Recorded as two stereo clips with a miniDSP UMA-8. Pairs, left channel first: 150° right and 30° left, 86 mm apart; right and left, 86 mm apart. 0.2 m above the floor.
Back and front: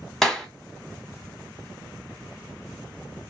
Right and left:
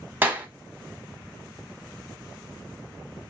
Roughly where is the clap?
Behind left.